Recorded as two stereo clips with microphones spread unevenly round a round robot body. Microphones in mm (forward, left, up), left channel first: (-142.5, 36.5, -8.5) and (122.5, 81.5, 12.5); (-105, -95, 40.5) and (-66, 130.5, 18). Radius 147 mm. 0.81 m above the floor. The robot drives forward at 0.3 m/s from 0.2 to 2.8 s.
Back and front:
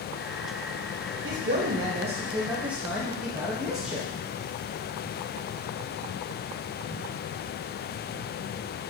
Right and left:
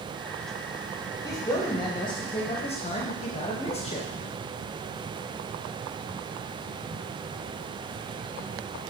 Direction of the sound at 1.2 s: 25° right.